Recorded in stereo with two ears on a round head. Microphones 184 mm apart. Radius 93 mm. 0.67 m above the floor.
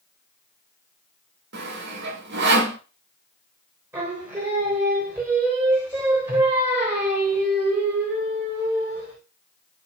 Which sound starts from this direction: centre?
Singing, at 3.9 s.